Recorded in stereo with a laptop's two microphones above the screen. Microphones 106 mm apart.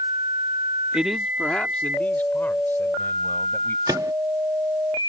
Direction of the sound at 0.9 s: 10° right (ahead or behind).